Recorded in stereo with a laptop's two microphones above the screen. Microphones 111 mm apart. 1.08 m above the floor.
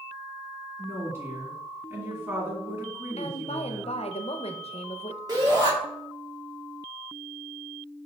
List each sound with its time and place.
0.8 s a woman speaking: 25° right (ahead or behind), 1.8 m
3.2 s a woman speaking: 70° left (ahead or behind), 0.5 m
5.3 s a shout: 40° right (ahead or behind), 1.6 m